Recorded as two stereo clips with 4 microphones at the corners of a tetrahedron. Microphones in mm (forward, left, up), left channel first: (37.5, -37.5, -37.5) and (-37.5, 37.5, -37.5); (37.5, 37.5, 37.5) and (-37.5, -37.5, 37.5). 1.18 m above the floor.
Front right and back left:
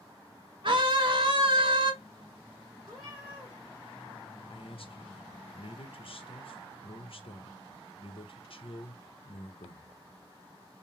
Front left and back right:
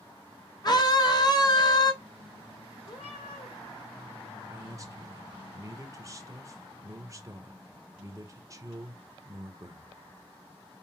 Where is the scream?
95° left, 1.1 m.